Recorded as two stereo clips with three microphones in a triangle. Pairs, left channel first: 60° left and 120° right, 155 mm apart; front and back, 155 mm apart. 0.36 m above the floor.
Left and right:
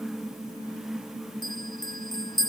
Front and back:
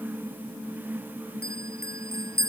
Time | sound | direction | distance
1.4 | a bell | 5° right | ?